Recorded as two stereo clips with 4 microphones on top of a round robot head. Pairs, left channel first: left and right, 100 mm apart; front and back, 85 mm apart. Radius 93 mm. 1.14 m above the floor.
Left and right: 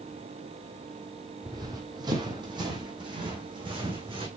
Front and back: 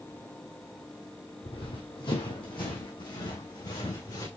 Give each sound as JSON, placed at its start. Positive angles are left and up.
{"t": 1.4, "sound": "running footsteps", "azimuth_deg": -40, "distance_m": 2.5}